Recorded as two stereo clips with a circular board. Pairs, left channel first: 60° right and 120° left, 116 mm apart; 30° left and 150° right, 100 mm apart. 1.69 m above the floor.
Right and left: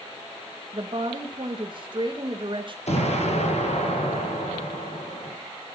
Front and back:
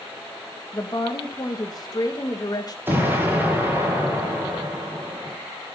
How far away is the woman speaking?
About 1.8 m.